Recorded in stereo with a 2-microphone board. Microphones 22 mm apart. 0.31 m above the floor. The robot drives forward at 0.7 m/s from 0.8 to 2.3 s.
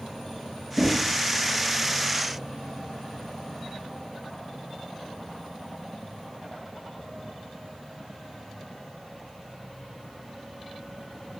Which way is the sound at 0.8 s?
5° left (ahead or behind).